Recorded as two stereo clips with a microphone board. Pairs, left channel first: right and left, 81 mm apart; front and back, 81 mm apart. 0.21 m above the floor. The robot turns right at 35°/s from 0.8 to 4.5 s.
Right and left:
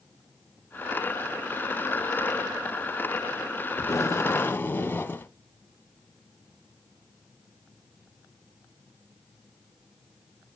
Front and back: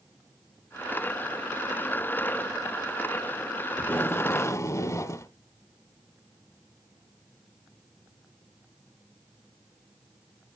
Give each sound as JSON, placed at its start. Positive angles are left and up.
{"t": 3.8, "sound": "tape being pulled", "azimuth_deg": -60, "distance_m": 0.8}